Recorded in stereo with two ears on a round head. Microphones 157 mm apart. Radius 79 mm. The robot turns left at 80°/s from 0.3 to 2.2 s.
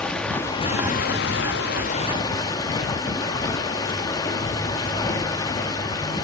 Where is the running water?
175° left, 1.4 m; by 6.2 s 20° left, 1.4 m.